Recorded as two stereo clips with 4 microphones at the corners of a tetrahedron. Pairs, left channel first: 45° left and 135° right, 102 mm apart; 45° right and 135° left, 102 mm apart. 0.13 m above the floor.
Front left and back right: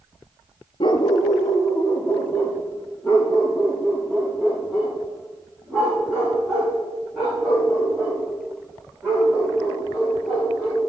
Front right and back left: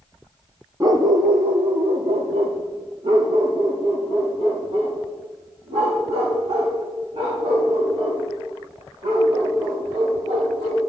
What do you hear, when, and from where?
0.8 s a dog barking: 80° left, 0.7 m; by 10.8 s 140° left, 7 m